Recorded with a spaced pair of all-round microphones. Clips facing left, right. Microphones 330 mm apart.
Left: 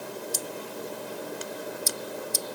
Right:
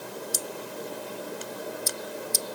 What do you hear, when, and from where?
Only background noise.